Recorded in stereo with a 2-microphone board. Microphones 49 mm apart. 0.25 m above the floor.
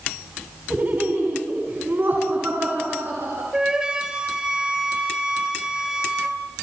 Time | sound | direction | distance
0.7 | laughter | 40° right (ahead or behind) | 2 m
3.5 | a flute | 15° right (ahead or behind) | 1.9 m